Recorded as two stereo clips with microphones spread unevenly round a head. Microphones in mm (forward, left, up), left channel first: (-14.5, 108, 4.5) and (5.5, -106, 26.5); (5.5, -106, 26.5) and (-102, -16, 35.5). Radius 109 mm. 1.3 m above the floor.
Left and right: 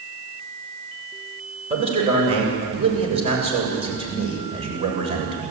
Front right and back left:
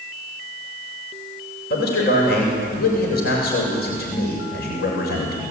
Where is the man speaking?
20° right, 7 m.